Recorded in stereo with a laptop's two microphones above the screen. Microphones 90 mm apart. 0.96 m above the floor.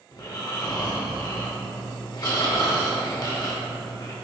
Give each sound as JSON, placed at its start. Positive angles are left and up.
{"t": 0.1, "sound": "snoring", "side_deg": 45, "distance_m": 0.7}